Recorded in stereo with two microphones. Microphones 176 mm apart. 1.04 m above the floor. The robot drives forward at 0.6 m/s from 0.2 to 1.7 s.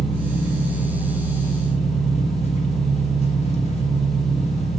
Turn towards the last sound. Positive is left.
turn(degrees=35)  # may be behind; listen again after turning